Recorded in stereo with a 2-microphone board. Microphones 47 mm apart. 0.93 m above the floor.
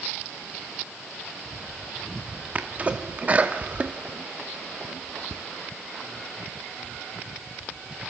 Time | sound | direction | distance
2.5 | a sneeze | 35° right (ahead or behind) | 1.9 m